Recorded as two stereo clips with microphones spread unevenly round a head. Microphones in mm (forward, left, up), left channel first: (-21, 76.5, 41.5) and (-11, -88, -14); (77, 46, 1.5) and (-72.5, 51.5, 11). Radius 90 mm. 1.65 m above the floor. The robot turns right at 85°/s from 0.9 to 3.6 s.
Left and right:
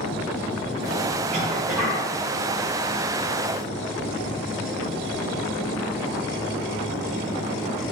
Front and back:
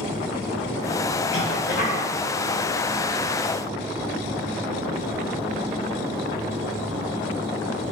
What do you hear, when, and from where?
1.3 s a cough: 30° right, 3 m; by 2.1 s 35° left, 3 m